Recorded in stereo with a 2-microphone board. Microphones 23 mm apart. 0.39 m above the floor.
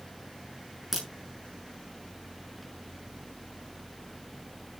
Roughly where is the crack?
Centre.